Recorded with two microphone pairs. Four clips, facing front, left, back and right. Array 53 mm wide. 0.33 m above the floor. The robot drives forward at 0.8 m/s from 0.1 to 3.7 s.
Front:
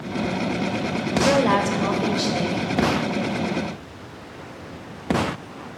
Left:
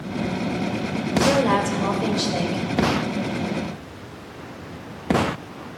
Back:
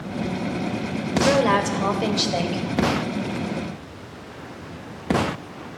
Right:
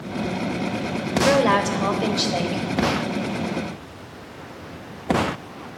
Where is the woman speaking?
100° right, 1.2 m; by 2.6 s 155° right, 1.7 m.